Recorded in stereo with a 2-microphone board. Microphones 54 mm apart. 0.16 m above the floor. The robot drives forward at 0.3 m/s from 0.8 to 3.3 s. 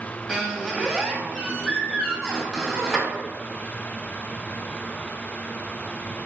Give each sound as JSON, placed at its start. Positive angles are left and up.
{"t": 0.3, "sound": "a squeak", "side_deg": 0, "distance_m": 1.0}